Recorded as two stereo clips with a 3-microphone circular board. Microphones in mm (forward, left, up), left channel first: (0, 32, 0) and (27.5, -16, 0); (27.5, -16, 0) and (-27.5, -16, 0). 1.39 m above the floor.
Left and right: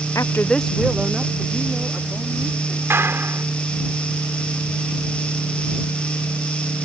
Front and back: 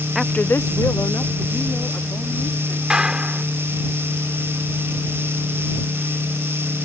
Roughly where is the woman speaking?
Left.